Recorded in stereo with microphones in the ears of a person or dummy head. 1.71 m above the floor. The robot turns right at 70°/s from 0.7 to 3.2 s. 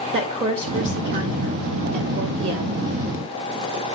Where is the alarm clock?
I don't hear an alarm clock.